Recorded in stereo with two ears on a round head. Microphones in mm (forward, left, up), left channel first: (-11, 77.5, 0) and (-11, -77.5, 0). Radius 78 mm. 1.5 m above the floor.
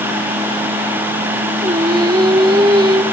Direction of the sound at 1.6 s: 25° right (ahead or behind).